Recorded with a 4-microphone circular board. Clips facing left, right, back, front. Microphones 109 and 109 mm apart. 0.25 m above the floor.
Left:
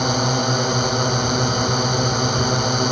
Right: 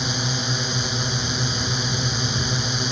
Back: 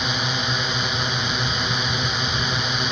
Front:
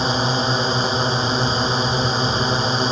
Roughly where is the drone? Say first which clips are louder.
Left 8 dB, front 6 dB; ahead left.